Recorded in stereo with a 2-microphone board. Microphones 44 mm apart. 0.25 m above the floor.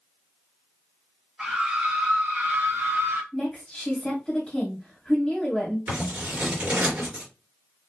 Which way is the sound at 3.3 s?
15° left (ahead or behind).